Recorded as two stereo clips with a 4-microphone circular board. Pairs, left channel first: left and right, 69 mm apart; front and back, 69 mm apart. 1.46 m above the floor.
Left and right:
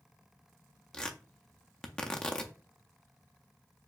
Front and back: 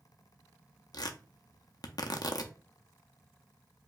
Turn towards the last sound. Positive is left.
turn(degrees=15)